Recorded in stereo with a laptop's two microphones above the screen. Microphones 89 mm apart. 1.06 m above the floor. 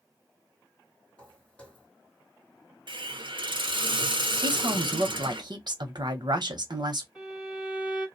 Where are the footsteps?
15° left (ahead or behind), 1.7 m.